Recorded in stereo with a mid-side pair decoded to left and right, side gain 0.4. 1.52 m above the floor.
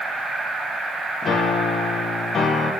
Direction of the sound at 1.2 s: 55° left.